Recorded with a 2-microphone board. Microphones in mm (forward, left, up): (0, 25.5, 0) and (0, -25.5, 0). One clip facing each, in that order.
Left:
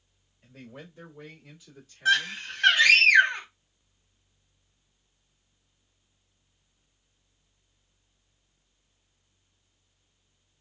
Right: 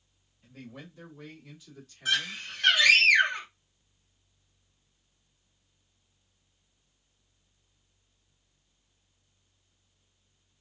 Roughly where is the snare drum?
I don't hear a snare drum.